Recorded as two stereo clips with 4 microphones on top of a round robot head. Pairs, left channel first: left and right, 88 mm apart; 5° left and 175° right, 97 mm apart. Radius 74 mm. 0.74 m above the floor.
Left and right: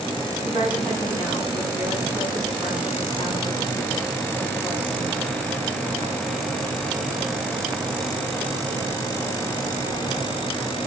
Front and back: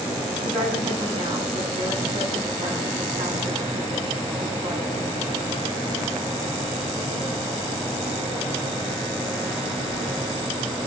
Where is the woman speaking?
145° left, 7.5 m.